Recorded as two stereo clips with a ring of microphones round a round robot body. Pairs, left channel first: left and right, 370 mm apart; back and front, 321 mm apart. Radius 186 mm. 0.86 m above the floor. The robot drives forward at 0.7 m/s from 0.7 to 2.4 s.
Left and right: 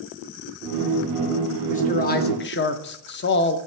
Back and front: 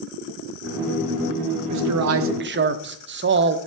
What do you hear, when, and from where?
1.7 s a man speaking: 20° left, 1.1 m; by 3.6 s 40° left, 0.7 m